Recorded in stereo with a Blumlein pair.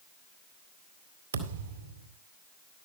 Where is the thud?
70° right, 2.5 m.